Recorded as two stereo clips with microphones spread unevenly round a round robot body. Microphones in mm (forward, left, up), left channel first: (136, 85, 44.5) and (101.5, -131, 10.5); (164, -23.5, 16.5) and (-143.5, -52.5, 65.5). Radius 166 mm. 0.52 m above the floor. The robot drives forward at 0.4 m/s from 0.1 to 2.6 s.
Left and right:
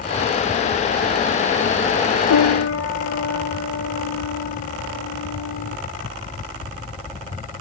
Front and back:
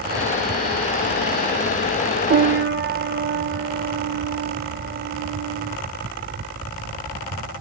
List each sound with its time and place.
2.3 s a piano: 120° left; by 5.8 s 125° left